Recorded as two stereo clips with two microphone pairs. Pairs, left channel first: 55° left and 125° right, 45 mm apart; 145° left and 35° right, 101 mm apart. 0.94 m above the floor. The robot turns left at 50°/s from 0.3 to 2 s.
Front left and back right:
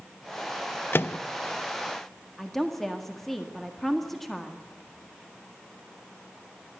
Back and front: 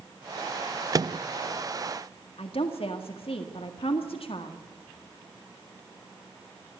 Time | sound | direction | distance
0.9 | a microwave | 20° left | 0.5 m
2.4 | a woman speaking | 135° left | 1.7 m